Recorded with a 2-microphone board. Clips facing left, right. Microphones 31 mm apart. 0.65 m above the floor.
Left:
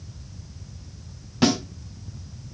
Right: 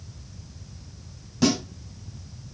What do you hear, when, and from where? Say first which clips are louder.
1.4 s a snare drum: left 1 dB; 35° left (ahead or behind), 4 m